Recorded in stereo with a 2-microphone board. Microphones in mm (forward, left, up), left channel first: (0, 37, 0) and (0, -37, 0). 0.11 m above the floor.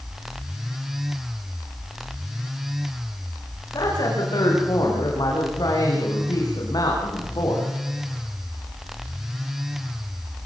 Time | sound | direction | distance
3.7 | a woman speaking | 60° left (ahead or behind) | 8.5 m